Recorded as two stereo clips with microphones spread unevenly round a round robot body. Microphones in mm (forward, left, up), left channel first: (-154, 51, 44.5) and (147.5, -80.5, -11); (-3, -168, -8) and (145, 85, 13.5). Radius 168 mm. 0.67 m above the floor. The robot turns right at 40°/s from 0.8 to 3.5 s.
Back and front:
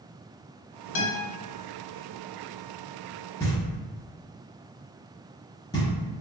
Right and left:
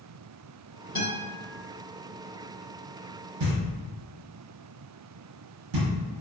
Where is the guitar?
160° left, 1.0 m; by 1.2 s 175° left, 1.0 m.